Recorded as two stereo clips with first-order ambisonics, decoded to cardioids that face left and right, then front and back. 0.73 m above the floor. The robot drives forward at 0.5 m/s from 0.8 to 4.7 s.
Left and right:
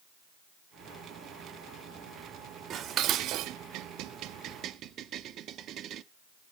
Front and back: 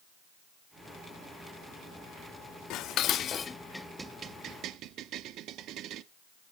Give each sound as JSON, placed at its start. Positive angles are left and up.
{"t": 2.7, "sound": "dishes clattering", "azimuth_deg": -35, "distance_m": 0.7}